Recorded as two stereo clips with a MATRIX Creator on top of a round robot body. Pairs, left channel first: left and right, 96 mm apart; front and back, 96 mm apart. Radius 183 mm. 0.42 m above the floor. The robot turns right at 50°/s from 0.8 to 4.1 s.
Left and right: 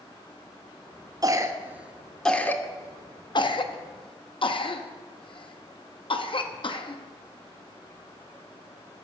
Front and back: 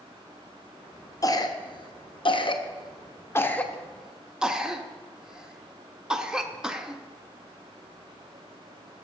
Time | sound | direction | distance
1.2 | a cough | 45° right | 1.4 m